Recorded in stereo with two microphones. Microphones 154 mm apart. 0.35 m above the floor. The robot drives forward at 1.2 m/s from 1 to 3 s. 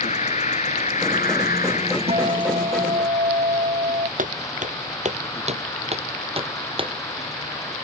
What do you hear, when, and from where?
0.0 s an insect: 55° left (ahead or behind); by 7.8 s 20° left (ahead or behind)
2.1 s a guitar: 40° right (ahead or behind); by 4.1 s 45° right (ahead or behind)
4.2 s footsteps: 60° right (ahead or behind); by 6.9 s 35° right (ahead or behind)